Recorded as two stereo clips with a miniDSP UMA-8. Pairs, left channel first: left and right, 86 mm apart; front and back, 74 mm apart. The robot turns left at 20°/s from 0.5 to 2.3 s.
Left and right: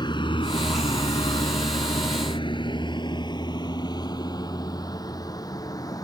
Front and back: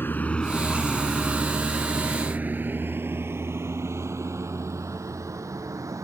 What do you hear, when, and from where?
0.0 s a vehicle: 60° left; by 6.0 s 135° left